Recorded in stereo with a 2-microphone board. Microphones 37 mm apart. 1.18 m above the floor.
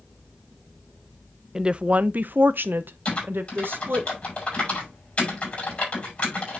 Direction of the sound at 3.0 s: 40° left (ahead or behind).